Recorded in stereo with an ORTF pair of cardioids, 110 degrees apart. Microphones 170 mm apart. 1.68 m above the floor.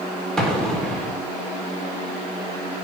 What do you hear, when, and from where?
0.4 s an explosion: 5° left, 3 m